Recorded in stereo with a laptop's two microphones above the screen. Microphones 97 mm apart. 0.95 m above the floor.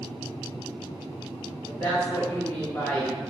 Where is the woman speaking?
25° left (ahead or behind), 1.3 m.